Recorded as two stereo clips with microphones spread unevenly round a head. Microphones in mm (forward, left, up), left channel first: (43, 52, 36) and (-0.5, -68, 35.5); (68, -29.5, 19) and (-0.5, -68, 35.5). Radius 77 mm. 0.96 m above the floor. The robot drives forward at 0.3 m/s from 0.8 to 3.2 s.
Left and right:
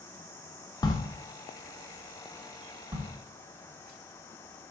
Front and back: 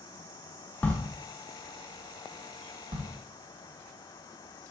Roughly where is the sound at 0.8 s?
Ahead left.